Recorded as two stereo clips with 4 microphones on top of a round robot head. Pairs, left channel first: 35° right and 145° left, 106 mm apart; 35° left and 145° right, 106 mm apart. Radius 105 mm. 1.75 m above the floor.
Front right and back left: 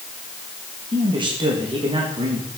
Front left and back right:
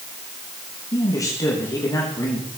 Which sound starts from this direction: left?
A man speaking, at 0.9 s.